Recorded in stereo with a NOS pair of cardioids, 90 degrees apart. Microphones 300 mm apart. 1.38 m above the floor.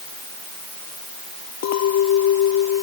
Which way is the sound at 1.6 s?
65° left.